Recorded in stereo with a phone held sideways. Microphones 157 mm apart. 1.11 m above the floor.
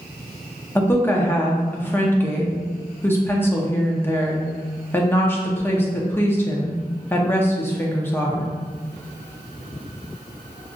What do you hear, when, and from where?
0.8 s a woman speaking: 15° left (ahead or behind), 0.6 m